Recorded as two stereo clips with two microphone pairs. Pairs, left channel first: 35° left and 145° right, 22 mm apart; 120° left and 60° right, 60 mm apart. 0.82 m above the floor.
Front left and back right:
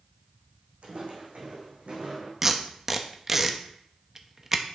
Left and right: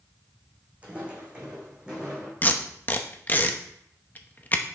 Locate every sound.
0.8 s footsteps: 125° right, 2.5 m; by 2.3 s 140° right, 3 m
2.4 s tape being pulled: 160° left, 0.7 m